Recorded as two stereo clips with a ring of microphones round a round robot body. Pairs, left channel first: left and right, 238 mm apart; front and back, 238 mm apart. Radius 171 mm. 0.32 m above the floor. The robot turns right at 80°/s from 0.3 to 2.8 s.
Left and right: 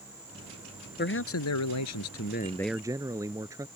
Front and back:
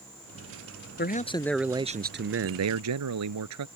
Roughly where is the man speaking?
Ahead left.